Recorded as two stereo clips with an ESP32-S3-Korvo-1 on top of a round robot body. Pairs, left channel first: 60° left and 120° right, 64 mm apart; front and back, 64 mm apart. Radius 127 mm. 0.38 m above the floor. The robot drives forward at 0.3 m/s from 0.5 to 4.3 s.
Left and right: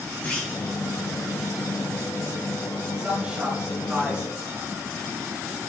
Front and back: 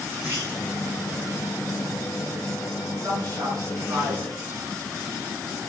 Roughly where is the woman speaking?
Behind.